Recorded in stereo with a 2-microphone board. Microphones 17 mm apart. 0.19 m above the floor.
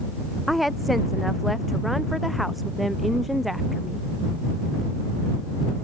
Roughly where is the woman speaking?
Centre.